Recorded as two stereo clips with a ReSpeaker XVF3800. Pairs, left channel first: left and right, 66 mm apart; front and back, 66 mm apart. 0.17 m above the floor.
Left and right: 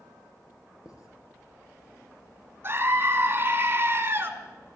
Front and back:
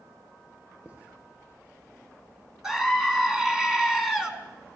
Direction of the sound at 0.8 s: 115° left.